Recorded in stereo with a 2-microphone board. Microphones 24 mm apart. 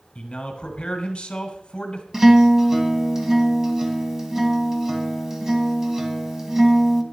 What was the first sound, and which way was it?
A man speaking, 45° left (ahead or behind).